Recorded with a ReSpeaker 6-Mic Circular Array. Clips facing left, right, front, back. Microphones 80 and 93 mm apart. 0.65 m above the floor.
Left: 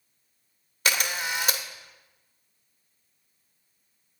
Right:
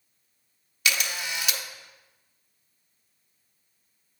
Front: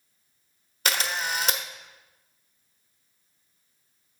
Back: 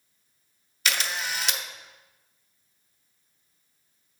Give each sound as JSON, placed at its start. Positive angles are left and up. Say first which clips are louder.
{"t": 0.8, "sound": "a camera shutter", "louder": "left 2 dB, front 2 dB", "azimuth_deg": 40, "distance_m": 0.9}